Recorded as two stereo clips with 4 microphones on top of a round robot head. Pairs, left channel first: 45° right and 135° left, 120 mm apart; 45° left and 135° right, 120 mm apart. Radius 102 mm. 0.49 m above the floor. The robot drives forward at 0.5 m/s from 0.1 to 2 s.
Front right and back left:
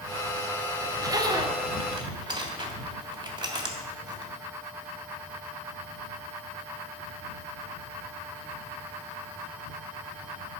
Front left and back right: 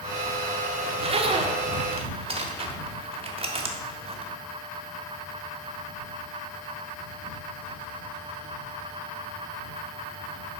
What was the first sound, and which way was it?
A zipper, 165° right.